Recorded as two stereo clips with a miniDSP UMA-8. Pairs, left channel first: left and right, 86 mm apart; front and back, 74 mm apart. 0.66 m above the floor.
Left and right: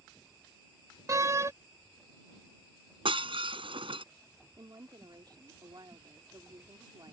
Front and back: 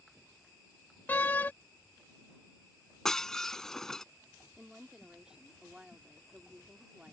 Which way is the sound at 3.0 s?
85° right.